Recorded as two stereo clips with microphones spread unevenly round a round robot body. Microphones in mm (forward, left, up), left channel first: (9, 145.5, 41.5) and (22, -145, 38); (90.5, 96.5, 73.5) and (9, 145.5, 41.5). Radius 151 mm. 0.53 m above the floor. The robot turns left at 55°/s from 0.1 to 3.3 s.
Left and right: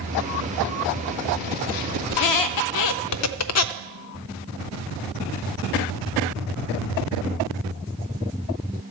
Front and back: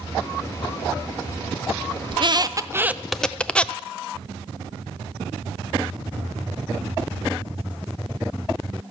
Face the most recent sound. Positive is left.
turn(degrees=55)